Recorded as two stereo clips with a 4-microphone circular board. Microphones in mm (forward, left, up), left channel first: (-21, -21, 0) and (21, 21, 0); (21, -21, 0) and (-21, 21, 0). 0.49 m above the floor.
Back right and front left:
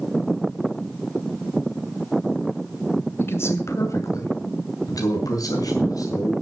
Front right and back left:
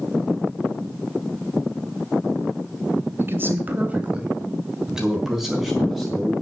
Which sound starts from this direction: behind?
A man speaking, at 3.2 s.